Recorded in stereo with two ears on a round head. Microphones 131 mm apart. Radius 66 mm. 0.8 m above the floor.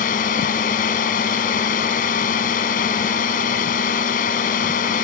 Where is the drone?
60° left (ahead or behind).